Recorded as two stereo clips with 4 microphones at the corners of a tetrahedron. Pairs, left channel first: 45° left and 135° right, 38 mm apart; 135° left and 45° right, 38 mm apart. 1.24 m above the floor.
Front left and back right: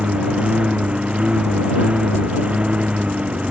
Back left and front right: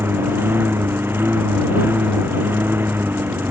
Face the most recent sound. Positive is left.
turn(degrees=-75)